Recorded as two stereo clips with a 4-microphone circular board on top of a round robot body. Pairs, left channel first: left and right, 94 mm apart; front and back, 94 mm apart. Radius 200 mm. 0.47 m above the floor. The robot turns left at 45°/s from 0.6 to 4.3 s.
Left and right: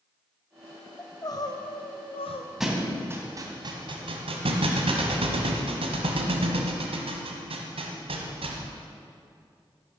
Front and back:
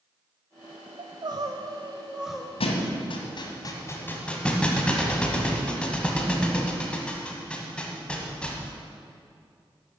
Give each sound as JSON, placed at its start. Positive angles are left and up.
{"t": 1.0, "sound": "crying", "azimuth_deg": 150, "distance_m": 0.8}
{"t": 2.6, "sound": "a thud", "azimuth_deg": 0, "distance_m": 1.4}